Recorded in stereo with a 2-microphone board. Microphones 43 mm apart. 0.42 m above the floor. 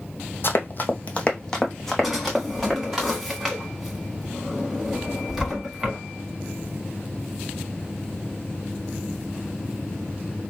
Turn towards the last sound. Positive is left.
turn(degrees=-5)  # may be behind; listen again after turning